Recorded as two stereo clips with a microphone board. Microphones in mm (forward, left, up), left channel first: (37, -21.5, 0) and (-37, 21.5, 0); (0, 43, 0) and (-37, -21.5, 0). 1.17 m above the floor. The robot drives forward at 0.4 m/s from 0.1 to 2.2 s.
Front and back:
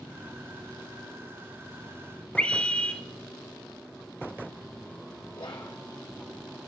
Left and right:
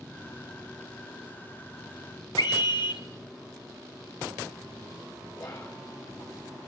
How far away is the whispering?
About 1.3 m.